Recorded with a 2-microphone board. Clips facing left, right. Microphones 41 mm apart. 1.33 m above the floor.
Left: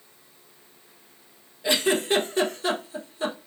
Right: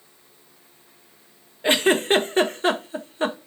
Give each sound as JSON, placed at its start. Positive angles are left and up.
{"t": 1.6, "sound": "a giggle", "side_deg": -40, "distance_m": 0.5}